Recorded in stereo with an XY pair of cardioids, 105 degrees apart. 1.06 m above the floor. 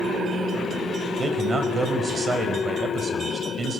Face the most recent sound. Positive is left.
turn(degrees=-35)